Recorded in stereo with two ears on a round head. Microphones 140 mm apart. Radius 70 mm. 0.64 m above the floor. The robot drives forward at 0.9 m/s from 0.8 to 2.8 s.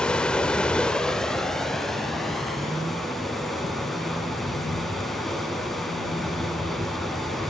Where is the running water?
5° left (ahead or behind), 0.8 m; by 7.5 s centre (ahead or behind), 2.5 m.